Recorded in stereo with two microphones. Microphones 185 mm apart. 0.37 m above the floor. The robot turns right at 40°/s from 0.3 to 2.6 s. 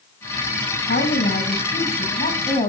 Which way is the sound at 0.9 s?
75° left.